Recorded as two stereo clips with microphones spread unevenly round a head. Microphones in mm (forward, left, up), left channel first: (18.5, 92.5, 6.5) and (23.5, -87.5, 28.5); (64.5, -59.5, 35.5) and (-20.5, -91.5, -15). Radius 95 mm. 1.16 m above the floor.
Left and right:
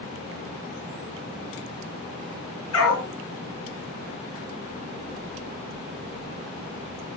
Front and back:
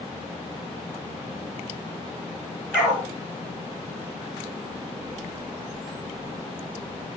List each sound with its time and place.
2.7 s a dog barking: 95° left, 3 m